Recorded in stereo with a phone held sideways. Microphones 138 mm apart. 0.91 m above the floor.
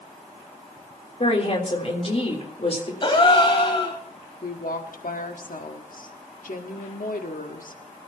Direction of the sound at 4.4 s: 80° left.